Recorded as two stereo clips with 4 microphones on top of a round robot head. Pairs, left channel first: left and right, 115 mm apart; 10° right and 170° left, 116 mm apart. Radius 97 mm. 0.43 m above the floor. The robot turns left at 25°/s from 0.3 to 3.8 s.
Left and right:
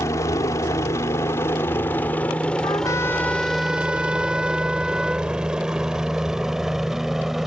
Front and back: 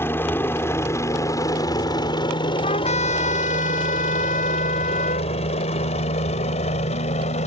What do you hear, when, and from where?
0.0 s a helicopter: 45° left; by 7.5 s straight ahead
2.6 s a trumpet: 25° left; by 5.3 s 5° right